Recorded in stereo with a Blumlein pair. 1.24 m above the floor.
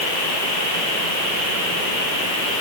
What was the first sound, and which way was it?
Only background noise.